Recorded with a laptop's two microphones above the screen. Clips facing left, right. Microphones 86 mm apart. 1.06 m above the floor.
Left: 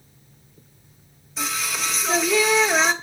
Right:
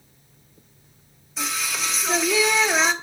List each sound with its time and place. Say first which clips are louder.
1.4 s singing: left 1 dB; centre (ahead or behind), 1.0 m